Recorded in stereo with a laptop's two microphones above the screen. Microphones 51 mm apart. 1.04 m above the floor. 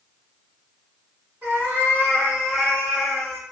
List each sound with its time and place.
1.4 s a cat meowing: 45° right (ahead or behind), 1.3 m; by 3.4 s 15° left (ahead or behind), 1.1 m